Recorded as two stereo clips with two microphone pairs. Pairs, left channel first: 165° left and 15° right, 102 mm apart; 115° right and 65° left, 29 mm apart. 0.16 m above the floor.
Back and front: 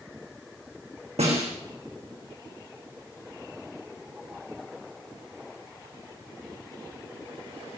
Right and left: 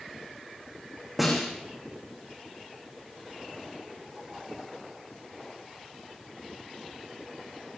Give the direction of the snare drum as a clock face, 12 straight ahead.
1 o'clock.